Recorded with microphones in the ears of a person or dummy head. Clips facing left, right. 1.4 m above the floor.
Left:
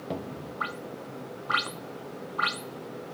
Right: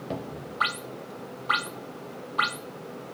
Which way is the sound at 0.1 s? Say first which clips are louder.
Even; centre (ahead or behind).